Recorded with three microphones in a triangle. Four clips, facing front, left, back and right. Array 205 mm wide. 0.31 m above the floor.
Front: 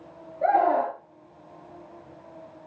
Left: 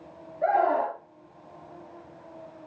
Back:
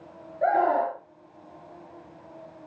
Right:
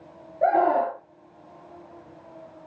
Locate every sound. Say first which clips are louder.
0.4 s a scream: right 3 dB, front 1 dB; 100° right, 4.5 m